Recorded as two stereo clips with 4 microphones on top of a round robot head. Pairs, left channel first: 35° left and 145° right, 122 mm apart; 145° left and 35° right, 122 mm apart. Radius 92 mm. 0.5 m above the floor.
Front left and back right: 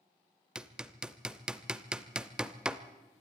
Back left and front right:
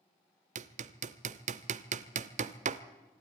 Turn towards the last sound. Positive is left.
turn(degrees=-60)